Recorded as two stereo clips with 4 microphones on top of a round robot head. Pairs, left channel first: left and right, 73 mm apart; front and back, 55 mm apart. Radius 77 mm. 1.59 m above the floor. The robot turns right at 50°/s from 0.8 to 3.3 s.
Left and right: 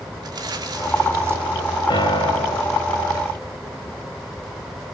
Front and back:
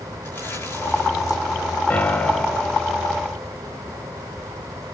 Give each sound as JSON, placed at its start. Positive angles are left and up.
{"t": 0.2, "sound": "crumpling", "azimuth_deg": -55, "distance_m": 7.0}
{"t": 1.9, "sound": "a piano", "azimuth_deg": 60, "distance_m": 3.5}